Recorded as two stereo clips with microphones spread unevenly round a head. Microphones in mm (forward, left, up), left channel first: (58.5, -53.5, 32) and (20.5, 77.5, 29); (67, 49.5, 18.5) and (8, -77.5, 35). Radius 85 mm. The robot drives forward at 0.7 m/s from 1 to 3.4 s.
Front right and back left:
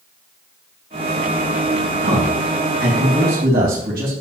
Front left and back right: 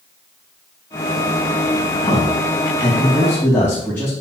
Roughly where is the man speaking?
Behind left.